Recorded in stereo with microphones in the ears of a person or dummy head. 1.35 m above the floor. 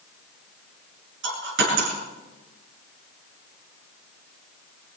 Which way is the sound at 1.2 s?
60° right (ahead or behind).